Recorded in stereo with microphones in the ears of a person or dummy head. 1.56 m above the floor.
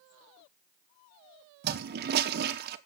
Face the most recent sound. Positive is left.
turn(degrees=-55)  # may be behind; listen again after turning